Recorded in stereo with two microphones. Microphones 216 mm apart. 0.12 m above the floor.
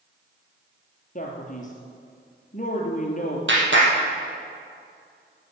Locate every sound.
1.1 s a man speaking: 40° left (ahead or behind), 3 m
3.5 s a clap: 70° right (ahead or behind), 3.5 m